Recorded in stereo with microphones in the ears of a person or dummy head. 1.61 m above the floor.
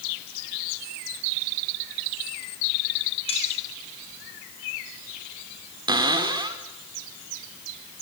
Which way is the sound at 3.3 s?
35° left (ahead or behind).